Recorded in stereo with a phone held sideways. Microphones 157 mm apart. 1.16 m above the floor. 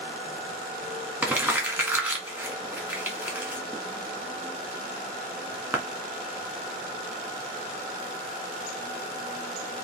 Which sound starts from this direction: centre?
Crumpling, at 1.2 s.